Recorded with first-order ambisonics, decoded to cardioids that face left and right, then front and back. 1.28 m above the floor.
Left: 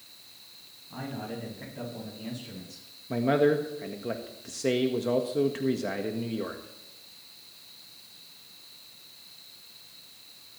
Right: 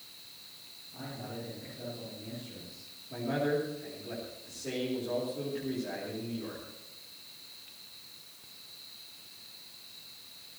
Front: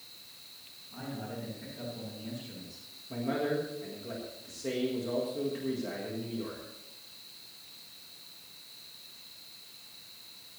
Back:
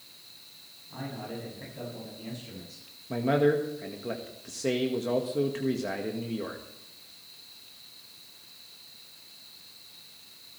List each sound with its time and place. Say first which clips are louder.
0.9 s a man speaking: left 5 dB, back 3 dB; 120° left, 8 m
3.1 s a man speaking: left 8 dB, back 7 dB; 120° left, 1.6 m